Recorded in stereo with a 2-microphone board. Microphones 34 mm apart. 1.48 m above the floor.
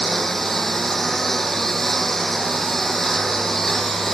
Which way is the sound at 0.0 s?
5° left (ahead or behind).